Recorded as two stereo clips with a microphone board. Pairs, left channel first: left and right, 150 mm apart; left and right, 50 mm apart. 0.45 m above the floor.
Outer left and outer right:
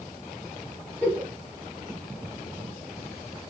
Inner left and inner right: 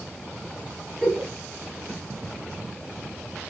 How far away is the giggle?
About 3.5 m.